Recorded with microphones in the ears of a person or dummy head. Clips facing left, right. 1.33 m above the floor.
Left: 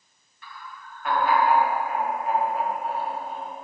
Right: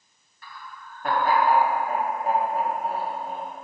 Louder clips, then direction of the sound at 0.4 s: Even; 30° right (ahead or behind).